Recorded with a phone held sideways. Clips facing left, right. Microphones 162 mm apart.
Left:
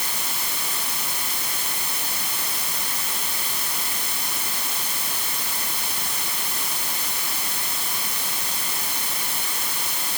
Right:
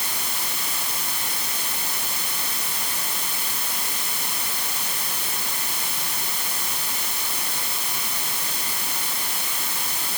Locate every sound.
Only background noise.